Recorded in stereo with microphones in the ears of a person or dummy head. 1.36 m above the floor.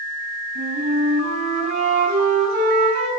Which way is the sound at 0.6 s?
60° right (ahead or behind).